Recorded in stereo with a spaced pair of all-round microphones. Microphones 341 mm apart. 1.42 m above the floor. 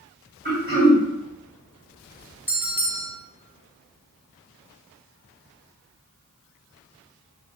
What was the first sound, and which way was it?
Throat clearing, 30° right (ahead or behind).